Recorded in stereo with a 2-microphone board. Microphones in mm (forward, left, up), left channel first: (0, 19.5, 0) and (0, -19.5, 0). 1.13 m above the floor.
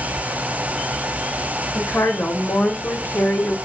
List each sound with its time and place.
1.8 s a woman speaking: 60° left (ahead or behind), 1.6 m; by 3.6 s 30° left (ahead or behind), 0.6 m